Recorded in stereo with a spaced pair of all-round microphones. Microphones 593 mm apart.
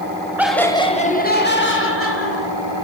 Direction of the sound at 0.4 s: 5° right (ahead or behind).